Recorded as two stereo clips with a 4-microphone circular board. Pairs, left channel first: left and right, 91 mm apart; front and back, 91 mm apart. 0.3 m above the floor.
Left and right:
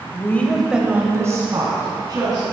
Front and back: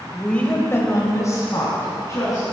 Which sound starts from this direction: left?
A woman speaking, at 0.1 s.